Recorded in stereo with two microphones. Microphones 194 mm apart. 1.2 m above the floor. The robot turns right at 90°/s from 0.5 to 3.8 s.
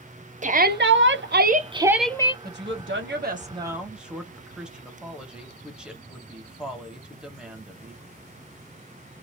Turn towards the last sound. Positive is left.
turn(degrees=-5)